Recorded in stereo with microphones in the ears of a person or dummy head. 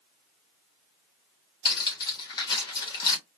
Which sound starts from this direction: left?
Cutlery clinking, at 1.6 s.